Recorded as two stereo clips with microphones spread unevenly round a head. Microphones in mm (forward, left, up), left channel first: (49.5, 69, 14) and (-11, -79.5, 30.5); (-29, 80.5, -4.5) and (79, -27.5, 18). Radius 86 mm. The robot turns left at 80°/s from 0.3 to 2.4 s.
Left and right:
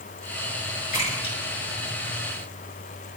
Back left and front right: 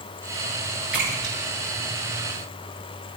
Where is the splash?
40° left, 6.5 m; by 2.7 s 80° right, 6.5 m.